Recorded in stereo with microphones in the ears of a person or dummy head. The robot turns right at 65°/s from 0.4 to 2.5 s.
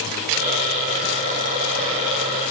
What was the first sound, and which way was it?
Only background noise.